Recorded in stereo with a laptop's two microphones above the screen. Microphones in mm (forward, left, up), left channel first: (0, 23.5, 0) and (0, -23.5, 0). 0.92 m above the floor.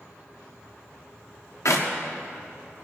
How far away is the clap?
About 1.3 m.